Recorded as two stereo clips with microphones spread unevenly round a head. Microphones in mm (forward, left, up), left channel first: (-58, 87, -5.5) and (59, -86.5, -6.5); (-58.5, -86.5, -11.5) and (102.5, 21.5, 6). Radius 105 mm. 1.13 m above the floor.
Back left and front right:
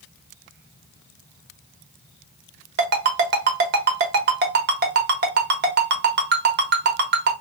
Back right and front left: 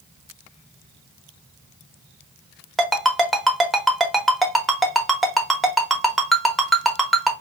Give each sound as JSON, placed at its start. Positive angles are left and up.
{"t": 2.8, "sound": "a ringtone", "azimuth_deg": -50, "distance_m": 0.8}